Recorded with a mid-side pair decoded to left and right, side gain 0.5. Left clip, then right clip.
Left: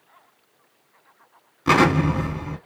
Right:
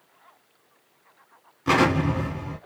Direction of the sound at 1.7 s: 25° left.